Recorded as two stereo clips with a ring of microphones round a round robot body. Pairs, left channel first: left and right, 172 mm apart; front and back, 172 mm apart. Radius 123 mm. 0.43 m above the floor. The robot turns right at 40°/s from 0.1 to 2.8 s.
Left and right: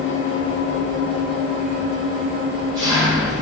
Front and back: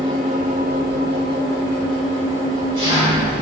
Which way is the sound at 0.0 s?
120° left.